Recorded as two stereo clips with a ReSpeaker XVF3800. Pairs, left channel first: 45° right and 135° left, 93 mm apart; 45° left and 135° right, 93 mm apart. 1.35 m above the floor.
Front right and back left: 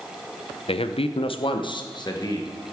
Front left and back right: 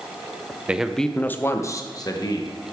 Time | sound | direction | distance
0.7 | a man speaking | 60° right | 0.6 m